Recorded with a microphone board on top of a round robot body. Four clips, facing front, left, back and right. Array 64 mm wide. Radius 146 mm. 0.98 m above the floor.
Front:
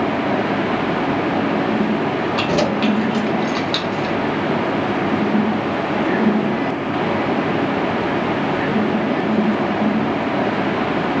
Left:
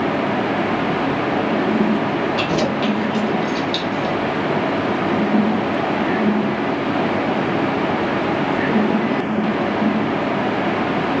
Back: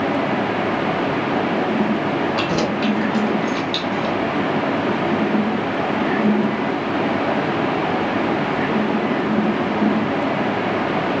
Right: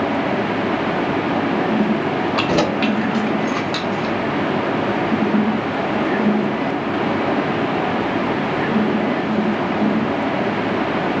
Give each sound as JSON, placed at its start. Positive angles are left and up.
{"t": 2.4, "sound": "keys jangling", "azimuth_deg": -80, "distance_m": 1.4}